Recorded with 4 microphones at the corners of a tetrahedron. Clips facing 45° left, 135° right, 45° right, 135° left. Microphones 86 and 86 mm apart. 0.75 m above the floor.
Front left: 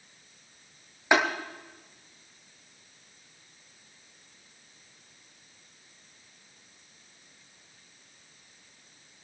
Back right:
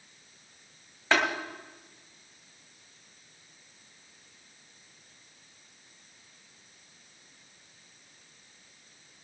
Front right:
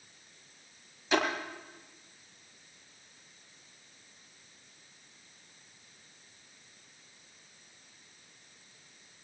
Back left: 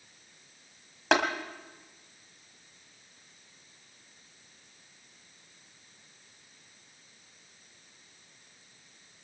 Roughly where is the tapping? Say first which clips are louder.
Front left 2 dB, back left 3 dB; behind left.